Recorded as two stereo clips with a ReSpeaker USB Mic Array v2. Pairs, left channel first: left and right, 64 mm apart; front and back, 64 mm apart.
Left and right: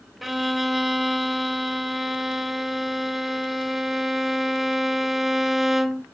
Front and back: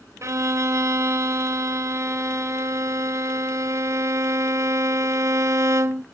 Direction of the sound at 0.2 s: 175° right.